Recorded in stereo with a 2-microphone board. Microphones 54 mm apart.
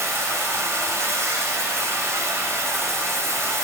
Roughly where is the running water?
Right.